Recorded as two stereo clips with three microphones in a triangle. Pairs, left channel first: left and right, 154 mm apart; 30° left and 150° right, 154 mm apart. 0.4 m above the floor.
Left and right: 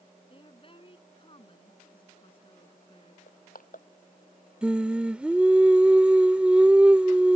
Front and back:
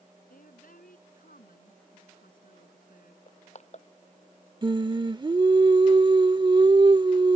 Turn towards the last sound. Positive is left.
turn(degrees=-165)